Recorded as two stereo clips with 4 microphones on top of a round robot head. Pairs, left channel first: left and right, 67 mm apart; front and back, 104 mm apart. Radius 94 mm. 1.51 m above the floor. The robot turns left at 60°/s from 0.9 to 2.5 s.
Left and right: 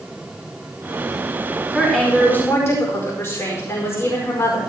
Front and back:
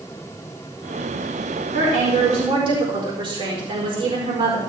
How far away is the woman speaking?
About 4.5 m.